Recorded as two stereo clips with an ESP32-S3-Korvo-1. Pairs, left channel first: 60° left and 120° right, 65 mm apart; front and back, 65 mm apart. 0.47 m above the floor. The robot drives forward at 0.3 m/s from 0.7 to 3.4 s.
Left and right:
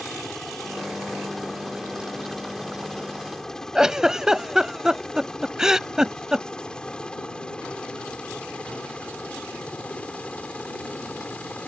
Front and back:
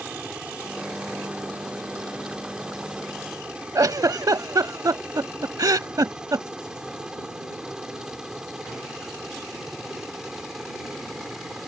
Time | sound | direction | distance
0.0 | a helicopter | 140° left | ?
3.8 | a giggle | 160° left | ?